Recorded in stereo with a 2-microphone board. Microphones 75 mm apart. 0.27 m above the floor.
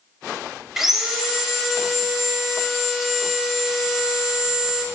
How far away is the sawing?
About 0.6 m.